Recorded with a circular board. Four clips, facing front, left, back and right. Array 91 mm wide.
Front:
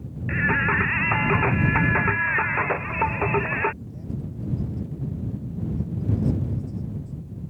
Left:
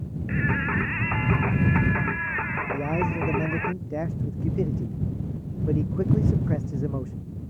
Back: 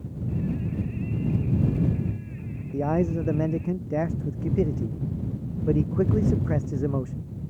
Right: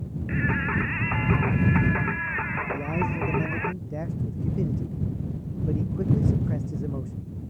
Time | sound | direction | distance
0.3 | singing | 5° left | ?
2.7 | a man speaking | 165° left | ?